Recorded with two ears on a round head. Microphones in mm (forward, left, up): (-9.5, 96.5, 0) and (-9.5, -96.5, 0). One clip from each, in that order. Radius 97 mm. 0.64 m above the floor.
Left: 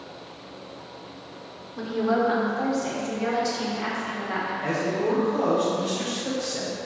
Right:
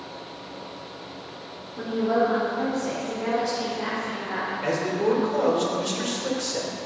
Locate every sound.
1.8 s a woman speaking: 30° left (ahead or behind), 1.5 m; by 4.5 s 65° left (ahead or behind), 3 m
4.6 s a man speaking: 50° right (ahead or behind), 2 m